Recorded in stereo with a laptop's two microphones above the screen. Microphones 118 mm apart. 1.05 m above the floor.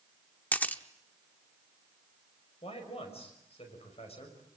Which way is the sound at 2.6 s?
60° left (ahead or behind).